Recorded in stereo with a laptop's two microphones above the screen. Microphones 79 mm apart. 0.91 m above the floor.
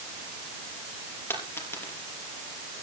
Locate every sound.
1.3 s a dropped coin: 30° left (ahead or behind), 5.5 m